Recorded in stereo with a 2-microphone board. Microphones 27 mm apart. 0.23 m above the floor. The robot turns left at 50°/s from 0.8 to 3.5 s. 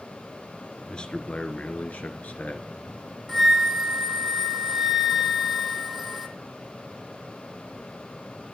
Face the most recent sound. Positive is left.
turn(degrees=0)  # may be behind; listen again after turning